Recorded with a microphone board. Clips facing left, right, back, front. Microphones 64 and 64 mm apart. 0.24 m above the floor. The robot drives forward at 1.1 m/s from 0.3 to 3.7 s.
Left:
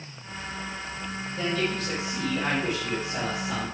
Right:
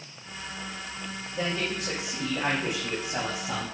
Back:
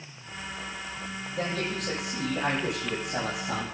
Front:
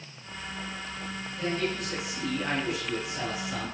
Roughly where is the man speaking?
Behind.